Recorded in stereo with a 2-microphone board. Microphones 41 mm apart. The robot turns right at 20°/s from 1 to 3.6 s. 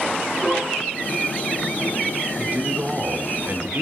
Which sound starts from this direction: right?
A man speaking, at 2.4 s.